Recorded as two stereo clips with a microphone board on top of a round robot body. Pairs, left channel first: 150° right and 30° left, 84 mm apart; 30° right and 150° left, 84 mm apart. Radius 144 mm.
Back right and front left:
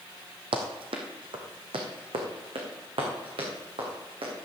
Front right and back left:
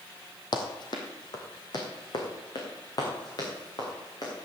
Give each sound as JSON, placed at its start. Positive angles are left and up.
{"t": 0.5, "sound": "running footsteps", "azimuth_deg": 5, "distance_m": 1.5}